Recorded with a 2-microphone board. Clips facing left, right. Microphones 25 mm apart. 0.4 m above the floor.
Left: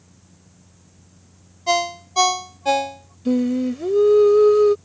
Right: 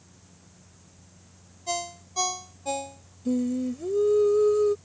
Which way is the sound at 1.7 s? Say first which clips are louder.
Left 12 dB; 50° left (ahead or behind).